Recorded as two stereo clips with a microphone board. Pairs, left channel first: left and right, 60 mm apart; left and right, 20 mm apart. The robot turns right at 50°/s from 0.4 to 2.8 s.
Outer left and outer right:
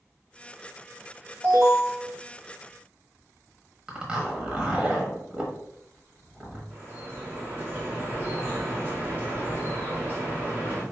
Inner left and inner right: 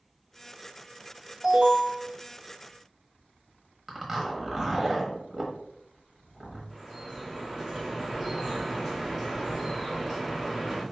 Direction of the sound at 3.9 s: 20° right (ahead or behind).